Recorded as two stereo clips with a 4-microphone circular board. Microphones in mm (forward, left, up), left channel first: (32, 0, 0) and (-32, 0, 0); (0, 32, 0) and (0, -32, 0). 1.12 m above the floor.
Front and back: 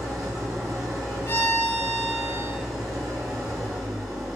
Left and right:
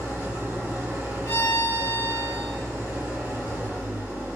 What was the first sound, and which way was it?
An engine running, 150° right.